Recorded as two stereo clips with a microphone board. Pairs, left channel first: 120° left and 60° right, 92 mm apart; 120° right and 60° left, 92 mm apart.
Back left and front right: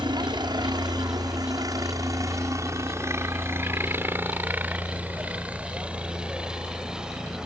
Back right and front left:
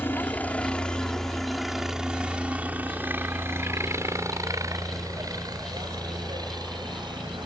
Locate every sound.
0.0 s a helicopter: 60° right; by 7.5 s 25° left